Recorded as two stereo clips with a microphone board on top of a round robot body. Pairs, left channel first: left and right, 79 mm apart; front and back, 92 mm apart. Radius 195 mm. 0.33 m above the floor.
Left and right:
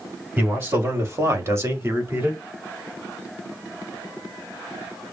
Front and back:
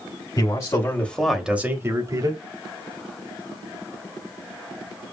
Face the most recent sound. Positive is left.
turn(degrees=-155)